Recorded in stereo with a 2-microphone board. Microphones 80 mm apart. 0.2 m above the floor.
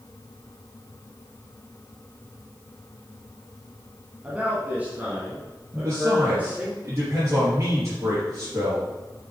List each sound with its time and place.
4.2 s a man speaking: 15° right (ahead or behind), 1.4 m; by 6.7 s 20° right (ahead or behind), 3.5 m
5.7 s a man speaking: 40° right (ahead or behind), 3.5 m